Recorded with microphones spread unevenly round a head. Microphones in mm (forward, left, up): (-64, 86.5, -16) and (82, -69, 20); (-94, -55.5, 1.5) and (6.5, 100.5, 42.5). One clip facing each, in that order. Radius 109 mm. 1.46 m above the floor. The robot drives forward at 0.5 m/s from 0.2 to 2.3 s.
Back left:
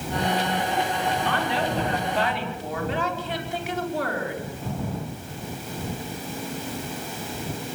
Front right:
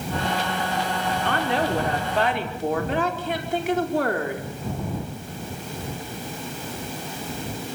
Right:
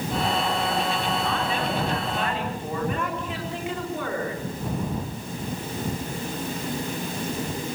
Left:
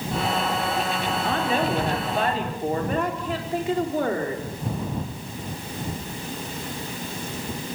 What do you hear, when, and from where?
1.2 s a woman speaking: 5° right, 5.5 m